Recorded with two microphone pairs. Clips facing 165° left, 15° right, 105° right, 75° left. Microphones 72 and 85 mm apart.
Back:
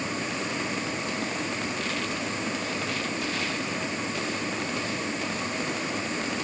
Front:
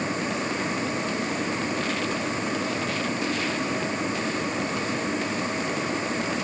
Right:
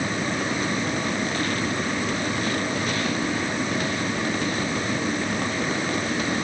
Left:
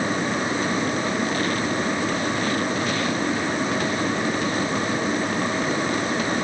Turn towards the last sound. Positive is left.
No sound to turn to.